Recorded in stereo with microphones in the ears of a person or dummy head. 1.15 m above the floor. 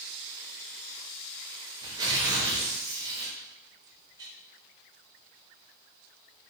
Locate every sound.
1.8 s tearing paper: 20° right (ahead or behind), 0.6 m